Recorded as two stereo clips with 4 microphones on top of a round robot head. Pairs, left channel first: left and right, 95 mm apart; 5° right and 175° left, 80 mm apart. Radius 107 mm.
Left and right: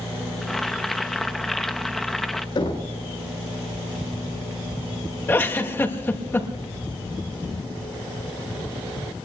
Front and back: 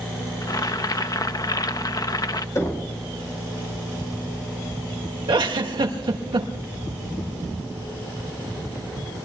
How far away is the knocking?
About 5 m.